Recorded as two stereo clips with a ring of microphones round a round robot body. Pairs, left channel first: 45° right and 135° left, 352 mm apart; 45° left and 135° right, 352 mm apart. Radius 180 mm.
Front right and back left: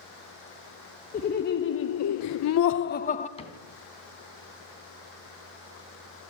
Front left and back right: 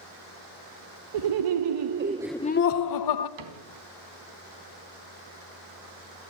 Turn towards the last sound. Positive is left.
turn(degrees=-120)